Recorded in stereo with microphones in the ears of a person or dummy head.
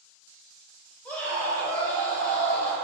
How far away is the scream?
About 1.7 m.